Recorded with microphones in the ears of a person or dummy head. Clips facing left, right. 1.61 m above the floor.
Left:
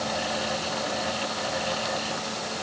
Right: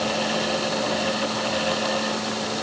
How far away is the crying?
I don't hear crying.